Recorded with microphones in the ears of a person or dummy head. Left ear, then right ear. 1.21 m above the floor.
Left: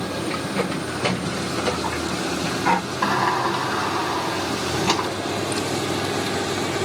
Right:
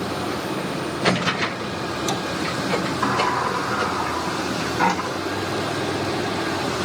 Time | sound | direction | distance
3.0 | a sliding door | 70° left (ahead or behind) | 3.5 m